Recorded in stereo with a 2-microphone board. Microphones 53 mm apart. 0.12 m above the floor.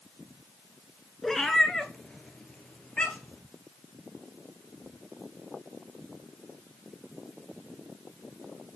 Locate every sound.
1.2 s a cat meowing: 5° left (ahead or behind), 0.9 m; by 3.4 s 20° left (ahead or behind), 1.8 m